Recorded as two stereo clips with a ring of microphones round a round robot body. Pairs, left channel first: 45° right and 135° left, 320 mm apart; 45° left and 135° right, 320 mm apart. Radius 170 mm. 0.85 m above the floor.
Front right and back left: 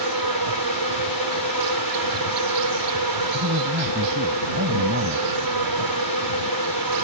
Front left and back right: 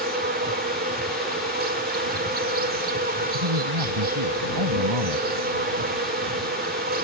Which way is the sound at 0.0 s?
160° left.